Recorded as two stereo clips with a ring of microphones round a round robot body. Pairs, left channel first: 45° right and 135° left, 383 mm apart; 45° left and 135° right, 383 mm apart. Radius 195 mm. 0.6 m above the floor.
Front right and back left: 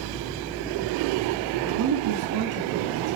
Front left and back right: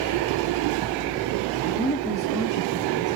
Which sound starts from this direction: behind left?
A woman speaking, at 1.6 s.